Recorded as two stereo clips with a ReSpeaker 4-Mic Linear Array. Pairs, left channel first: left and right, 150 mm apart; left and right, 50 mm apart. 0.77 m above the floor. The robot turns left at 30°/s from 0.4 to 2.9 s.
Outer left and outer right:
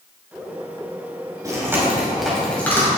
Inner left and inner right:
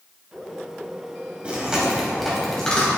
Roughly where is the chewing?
Right.